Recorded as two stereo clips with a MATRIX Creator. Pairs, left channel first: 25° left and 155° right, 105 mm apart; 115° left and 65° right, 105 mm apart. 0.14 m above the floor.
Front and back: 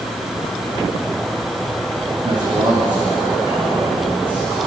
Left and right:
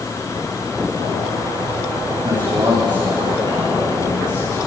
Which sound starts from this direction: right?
A man speaking, at 2.2 s.